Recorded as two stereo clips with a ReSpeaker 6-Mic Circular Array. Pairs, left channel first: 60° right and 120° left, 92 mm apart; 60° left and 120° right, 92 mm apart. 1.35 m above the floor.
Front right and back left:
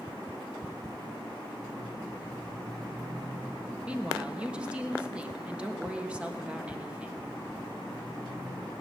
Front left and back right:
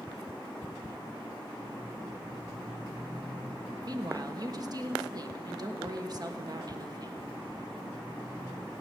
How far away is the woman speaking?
About 1.3 m.